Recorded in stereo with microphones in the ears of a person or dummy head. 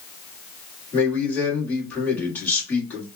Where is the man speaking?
10° left (ahead or behind), 2 m.